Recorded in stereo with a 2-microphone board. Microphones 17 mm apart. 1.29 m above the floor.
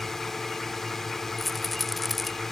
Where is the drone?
20° left (ahead or behind).